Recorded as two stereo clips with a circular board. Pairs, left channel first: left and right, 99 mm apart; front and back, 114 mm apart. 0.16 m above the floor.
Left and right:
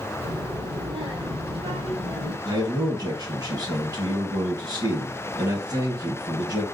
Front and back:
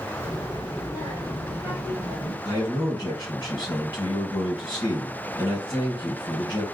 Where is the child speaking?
65° right, 3.5 m; by 2.4 s 80° right, 3.5 m.